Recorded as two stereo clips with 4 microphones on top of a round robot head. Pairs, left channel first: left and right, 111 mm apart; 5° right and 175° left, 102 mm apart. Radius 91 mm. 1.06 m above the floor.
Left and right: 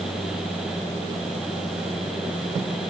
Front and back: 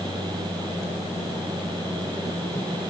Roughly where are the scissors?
No scissors in this recording.